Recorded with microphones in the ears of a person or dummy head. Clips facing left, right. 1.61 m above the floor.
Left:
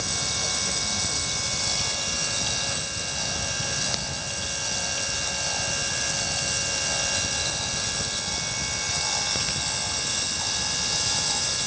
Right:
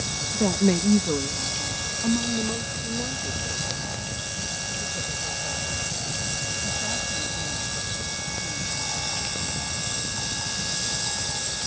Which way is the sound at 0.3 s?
65° right (ahead or behind).